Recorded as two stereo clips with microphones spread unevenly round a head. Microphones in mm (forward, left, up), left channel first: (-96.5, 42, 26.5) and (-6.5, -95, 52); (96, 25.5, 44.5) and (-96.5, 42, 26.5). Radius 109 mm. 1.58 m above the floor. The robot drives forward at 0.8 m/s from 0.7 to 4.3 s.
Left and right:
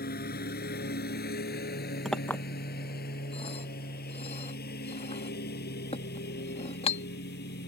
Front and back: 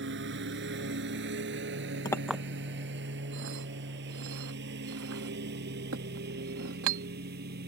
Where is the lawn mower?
150° left; by 7.7 s 140° left.